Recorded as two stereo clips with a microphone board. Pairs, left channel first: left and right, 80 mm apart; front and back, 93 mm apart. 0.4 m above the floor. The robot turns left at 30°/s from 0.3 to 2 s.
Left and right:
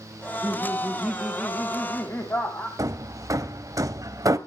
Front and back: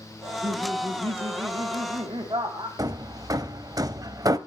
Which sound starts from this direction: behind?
Laughter, at 0.2 s.